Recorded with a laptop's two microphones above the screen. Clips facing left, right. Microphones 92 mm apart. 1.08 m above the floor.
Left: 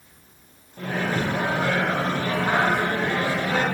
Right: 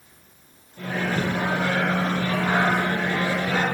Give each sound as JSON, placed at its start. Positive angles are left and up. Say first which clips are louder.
{"t": 0.8, "sound": "a microwave", "louder": "even", "side_deg": 40, "distance_m": 1.0}